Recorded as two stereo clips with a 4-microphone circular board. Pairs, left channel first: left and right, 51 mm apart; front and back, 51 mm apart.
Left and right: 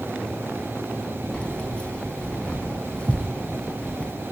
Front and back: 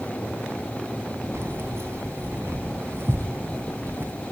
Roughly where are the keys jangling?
Behind left.